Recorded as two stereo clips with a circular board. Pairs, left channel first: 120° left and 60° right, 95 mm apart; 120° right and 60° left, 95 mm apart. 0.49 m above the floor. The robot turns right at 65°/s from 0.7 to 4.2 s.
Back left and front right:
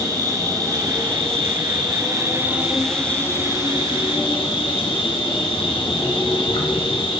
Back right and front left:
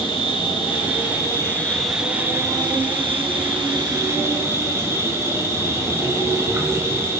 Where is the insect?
105° right, 1.8 m; by 7.2 s 120° left, 1.8 m.